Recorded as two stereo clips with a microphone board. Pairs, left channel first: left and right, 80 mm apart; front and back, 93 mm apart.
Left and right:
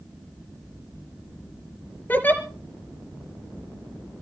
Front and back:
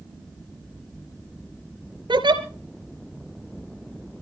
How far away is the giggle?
About 2.5 m.